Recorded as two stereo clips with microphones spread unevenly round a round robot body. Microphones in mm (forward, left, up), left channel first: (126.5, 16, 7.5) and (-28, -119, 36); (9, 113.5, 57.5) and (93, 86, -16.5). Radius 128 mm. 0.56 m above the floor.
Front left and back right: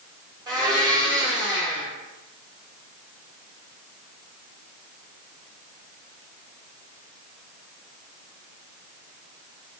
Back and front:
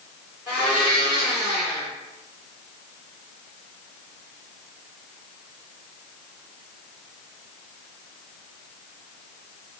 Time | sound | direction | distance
0.5 | a blender | 65° right | 1.8 m